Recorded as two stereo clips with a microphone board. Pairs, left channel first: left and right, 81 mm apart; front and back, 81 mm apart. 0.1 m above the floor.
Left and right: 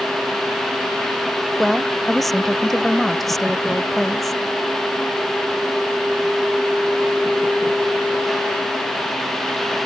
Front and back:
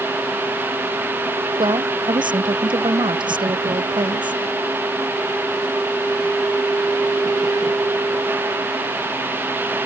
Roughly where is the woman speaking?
Behind.